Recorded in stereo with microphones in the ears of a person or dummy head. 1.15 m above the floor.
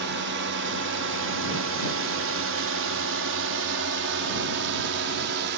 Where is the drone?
55° right (ahead or behind).